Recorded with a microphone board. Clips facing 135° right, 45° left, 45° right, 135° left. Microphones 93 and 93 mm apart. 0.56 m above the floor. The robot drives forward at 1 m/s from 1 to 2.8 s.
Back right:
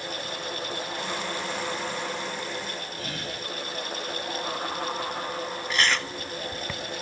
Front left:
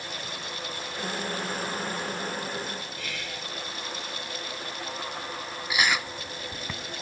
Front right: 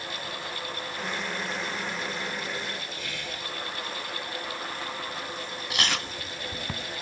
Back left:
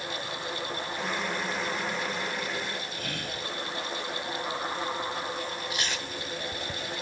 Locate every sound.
3.0 s whispering: 175° left
5.7 s chewing: 35° right